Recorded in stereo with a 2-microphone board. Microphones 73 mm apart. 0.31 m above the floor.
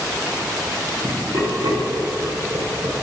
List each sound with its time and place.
1.0 s laughter: 45° right (ahead or behind), 2.5 m; by 2.9 s 55° right (ahead or behind), 3.5 m